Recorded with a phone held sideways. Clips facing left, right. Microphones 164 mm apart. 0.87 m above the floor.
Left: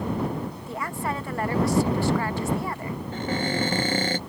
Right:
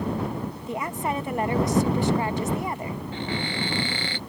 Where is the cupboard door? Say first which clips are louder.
Left 5 dB; 45° left (ahead or behind).